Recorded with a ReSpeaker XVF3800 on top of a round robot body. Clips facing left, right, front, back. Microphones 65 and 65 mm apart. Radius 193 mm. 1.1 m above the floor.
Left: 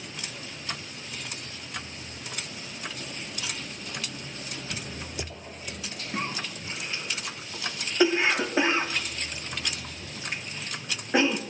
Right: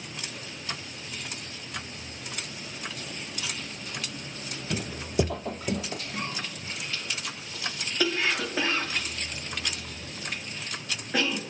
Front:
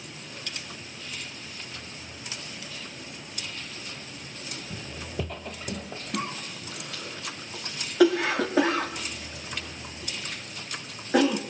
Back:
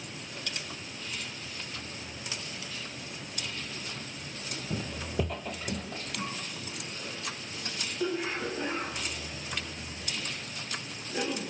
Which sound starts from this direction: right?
Footsteps, at 4.7 s.